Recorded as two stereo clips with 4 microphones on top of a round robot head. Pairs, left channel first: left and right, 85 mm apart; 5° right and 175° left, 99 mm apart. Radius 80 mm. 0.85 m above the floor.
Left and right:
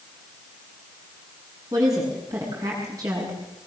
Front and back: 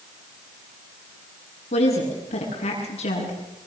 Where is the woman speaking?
30° right, 8 m.